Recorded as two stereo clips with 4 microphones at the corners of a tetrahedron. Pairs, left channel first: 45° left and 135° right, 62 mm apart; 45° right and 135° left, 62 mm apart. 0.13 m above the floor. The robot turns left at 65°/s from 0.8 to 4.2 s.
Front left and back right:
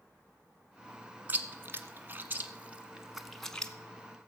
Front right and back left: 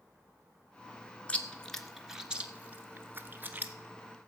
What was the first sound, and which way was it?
Chewing, 95° right.